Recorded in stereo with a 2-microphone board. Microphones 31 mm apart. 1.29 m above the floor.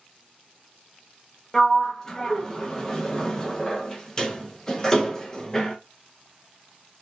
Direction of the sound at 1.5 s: 20° left (ahead or behind).